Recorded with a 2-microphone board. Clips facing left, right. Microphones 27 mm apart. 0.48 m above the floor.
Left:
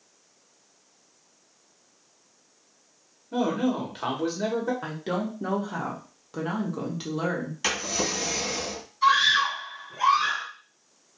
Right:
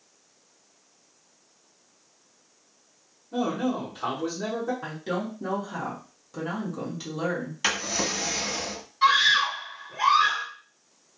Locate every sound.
3.3 s a man speaking: 45° left (ahead or behind), 1.5 m
4.8 s a woman speaking: 25° left (ahead or behind), 1.0 m
7.6 s a drawer: 10° right (ahead or behind), 1.1 m
9.0 s a scream: 50° right (ahead or behind), 1.2 m